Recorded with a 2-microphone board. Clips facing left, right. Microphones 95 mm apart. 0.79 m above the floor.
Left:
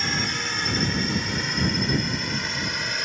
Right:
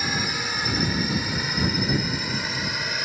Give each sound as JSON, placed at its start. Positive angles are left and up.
{"t": 0.0, "sound": "a drone", "side_deg": -5}